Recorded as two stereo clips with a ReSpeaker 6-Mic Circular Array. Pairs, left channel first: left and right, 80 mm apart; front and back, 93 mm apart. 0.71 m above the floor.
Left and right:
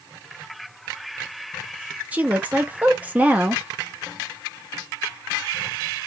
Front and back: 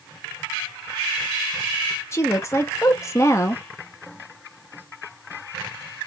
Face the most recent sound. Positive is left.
turn(degrees=-30)